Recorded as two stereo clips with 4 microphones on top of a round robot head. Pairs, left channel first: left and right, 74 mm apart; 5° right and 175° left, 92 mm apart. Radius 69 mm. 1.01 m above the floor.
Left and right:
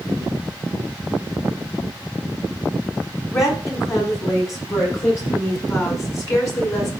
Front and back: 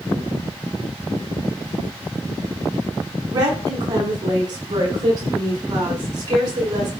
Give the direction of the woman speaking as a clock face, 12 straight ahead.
8 o'clock.